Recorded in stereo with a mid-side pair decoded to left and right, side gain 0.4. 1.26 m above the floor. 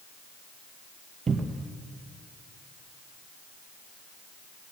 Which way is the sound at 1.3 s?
40° right.